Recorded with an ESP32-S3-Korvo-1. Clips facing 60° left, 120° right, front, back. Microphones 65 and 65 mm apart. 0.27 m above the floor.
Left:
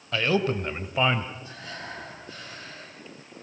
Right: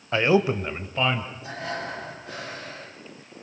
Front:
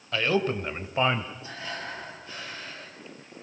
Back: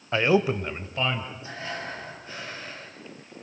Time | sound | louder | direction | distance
0.1 | a man speaking | right 4 dB, back 4 dB | 150° right | 1.1 m
1.4 | breathing | right 7 dB, back 2 dB | 110° right | 4.5 m